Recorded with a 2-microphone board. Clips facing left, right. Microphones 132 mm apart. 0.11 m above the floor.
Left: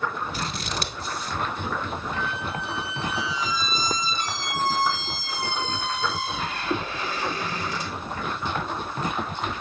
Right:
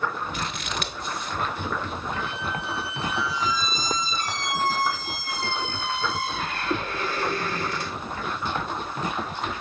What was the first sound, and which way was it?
Scissors, 35° left (ahead or behind).